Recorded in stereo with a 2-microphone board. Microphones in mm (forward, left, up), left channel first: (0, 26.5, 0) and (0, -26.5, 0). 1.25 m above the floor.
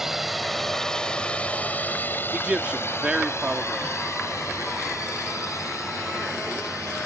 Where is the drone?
5° right (ahead or behind); by 7.1 s 85° left.